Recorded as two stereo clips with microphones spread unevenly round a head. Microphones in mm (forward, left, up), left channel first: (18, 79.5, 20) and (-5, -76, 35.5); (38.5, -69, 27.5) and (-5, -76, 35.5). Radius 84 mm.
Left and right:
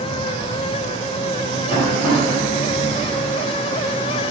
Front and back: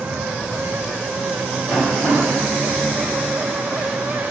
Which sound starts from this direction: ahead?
Tapping, at 1.7 s.